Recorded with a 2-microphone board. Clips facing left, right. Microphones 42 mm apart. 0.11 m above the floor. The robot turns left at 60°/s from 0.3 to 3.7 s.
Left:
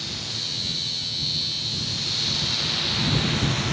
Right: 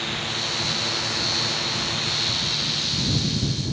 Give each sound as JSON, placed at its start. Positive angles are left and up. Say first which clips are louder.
{"t": 0.0, "sound": "a drone", "louder": "right 5 dB", "azimuth_deg": -40}